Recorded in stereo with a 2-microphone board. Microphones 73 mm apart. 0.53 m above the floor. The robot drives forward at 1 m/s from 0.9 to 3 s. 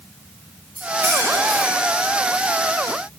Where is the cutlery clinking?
35° right (ahead or behind), 2.5 m; by 2.0 s 25° right (ahead or behind), 3.5 m.